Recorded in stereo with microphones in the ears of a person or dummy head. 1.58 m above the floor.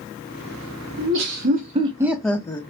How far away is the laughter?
About 0.7 m.